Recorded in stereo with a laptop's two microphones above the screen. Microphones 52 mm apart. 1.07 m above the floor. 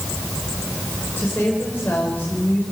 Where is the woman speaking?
45° left (ahead or behind), 5 m.